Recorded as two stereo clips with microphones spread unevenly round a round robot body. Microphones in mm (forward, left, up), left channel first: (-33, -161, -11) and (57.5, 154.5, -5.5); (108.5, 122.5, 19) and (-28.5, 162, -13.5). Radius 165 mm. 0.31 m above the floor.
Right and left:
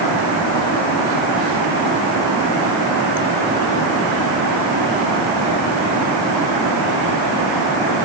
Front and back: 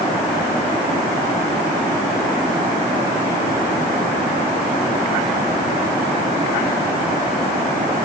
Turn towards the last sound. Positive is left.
No sound to turn to.